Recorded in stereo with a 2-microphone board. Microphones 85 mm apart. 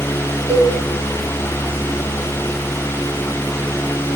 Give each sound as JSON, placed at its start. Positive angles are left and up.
{"t": 0.5, "sound": "a cowbell", "side_deg": -10, "distance_m": 1.2}